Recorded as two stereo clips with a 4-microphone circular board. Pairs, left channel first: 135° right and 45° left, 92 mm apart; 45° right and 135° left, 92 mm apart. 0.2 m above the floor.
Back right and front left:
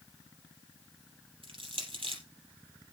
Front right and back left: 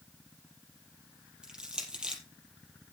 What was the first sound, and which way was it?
Crushing, 55° left.